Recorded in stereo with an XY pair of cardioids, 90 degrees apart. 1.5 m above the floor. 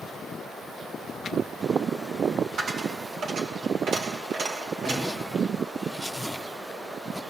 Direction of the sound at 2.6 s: 70° right.